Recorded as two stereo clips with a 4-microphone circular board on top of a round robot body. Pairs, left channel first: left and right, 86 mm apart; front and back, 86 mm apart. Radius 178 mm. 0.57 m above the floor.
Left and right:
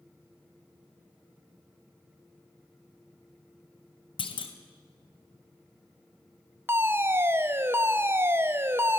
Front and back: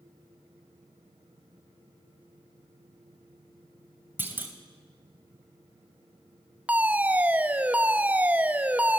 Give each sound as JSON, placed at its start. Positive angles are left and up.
{"t": 4.2, "sound": "a clunk", "azimuth_deg": 110, "distance_m": 2.5}
{"t": 6.7, "sound": "a fire alarm", "azimuth_deg": -125, "distance_m": 2.0}